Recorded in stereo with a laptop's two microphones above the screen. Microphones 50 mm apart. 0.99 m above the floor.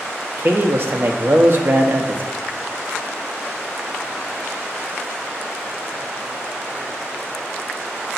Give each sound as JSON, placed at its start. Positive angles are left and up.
{"t": 0.4, "sound": "a man speaking", "side_deg": -50, "distance_m": 1.2}